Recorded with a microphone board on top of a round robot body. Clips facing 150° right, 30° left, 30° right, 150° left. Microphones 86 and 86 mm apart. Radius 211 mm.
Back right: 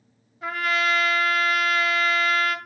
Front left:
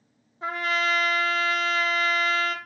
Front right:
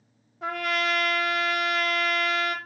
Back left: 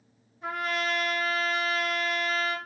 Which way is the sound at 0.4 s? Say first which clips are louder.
Back right 2 dB, front right 3 dB; 30° right.